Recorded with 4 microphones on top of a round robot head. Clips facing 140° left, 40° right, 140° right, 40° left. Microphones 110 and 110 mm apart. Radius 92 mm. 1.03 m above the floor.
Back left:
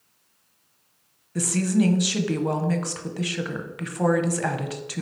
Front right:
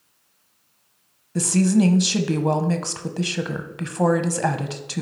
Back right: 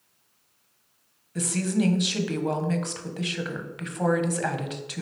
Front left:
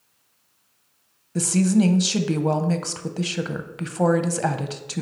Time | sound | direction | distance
1.4 | a woman speaking | 5° left | 1.0 m